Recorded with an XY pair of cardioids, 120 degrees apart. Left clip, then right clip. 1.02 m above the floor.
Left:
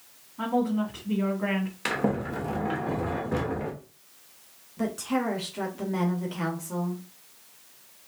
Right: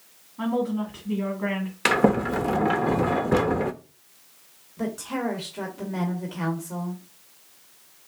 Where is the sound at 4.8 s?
5° left, 1.5 m.